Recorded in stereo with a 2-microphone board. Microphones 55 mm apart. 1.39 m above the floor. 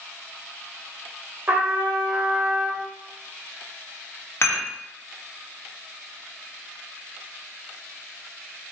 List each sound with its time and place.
1.5 s a trumpet: 30° right (ahead or behind), 0.7 m
4.4 s dishes clattering: 50° left (ahead or behind), 1.1 m